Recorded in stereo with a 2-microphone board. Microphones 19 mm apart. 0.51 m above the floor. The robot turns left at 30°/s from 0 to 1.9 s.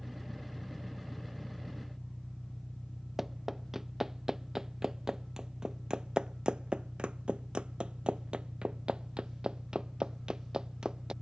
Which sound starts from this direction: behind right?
An engine running, at 0.0 s.